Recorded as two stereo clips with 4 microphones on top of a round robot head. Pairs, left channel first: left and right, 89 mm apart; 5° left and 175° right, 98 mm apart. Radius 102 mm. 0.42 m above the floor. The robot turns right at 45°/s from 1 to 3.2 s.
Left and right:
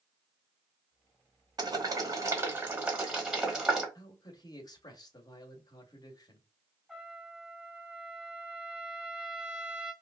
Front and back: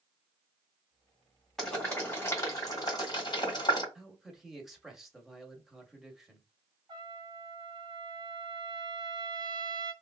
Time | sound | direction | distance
1.6 | boiling | 85° right | 1.9 m
4.0 | a man speaking | 95° left | 1.1 m
6.9 | a trumpet | 175° right | 1.6 m